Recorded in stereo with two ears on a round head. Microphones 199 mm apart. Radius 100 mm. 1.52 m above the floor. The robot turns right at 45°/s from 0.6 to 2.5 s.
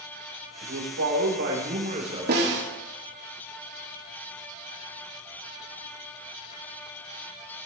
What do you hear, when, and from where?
0.6 s a man speaking: 95° right, 5 m; by 2.6 s 10° right, 5 m
2.3 s a snare drum: 50° right (ahead or behind), 2.5 m; by 2.6 s 60° right (ahead or behind), 2.5 m